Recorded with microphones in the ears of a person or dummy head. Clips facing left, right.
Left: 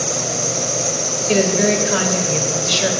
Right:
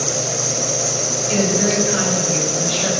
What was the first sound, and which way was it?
An insect, 10° right (ahead or behind).